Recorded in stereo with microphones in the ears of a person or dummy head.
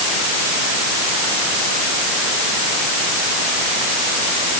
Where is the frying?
No frying in this recording.